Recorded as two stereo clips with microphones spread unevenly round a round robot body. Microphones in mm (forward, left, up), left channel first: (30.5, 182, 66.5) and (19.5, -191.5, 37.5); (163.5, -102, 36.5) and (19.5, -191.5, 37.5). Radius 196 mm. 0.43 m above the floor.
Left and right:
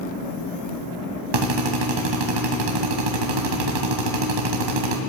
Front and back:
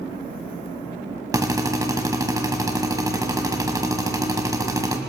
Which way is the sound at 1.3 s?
80° right.